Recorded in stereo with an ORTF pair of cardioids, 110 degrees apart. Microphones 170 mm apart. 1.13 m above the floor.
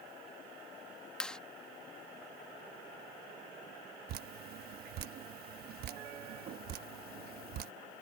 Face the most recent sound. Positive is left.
turn(degrees=-65)